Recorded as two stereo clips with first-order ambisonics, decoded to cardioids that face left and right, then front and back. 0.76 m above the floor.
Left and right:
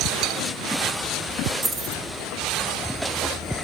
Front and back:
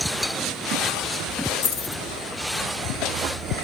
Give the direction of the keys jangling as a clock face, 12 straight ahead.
1 o'clock.